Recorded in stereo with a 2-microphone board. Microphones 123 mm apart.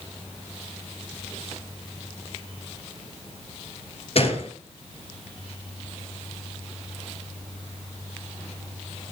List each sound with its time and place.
4.2 s a gunshot: 55° left (ahead or behind), 2.5 m